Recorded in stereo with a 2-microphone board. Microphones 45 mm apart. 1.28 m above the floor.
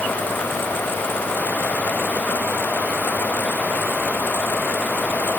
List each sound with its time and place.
Only background noise.